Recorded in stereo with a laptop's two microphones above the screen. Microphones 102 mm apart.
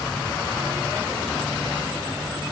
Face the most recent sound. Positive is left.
No sound to turn to.